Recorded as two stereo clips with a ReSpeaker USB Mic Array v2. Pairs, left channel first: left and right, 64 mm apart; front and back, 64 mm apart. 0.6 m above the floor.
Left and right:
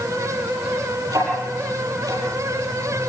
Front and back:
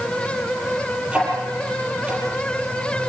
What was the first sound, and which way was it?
Ticking, 110° right.